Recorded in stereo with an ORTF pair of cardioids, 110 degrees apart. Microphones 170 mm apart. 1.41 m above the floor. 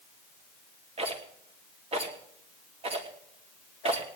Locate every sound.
1.0 s a rattle: 35° right, 3 m